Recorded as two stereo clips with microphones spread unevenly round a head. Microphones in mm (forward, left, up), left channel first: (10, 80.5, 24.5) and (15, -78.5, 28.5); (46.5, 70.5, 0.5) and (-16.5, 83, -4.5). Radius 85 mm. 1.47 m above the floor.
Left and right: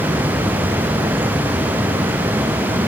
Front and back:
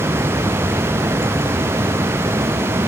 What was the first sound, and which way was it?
Only background noise.